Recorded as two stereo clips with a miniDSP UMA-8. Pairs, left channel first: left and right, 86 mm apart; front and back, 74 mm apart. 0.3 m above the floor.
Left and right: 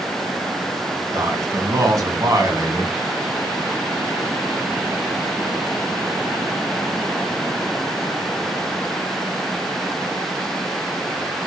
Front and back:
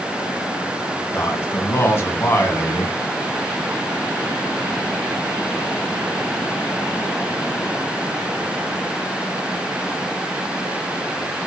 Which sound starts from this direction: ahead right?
A man speaking, at 1.1 s.